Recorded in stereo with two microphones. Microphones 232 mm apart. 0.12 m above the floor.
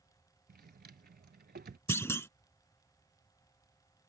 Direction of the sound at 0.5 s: 45° right (ahead or behind).